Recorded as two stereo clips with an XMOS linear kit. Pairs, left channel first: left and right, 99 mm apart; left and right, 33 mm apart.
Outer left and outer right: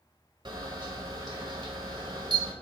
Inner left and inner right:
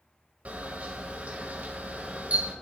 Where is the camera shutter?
50° right (ahead or behind), 1.5 m.